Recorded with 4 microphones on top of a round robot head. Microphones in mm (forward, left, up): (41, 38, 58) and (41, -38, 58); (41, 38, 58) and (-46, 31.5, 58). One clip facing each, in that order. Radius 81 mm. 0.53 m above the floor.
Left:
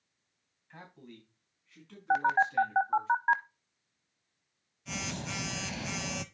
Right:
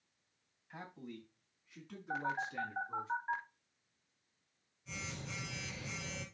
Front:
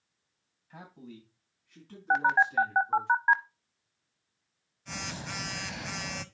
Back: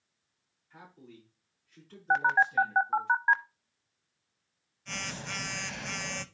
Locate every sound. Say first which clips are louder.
0.7 s a man speaking: right 2 dB, front 4 dB; 10° right, 3.5 m; by 3.1 s 20° right, 6 m
2.1 s a phone buzzing: left 12 dB, front 1 dB; 85° left, 0.5 m